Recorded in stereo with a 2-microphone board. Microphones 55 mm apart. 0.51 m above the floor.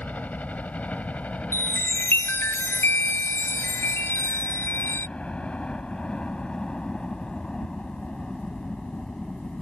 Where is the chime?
50° left (ahead or behind).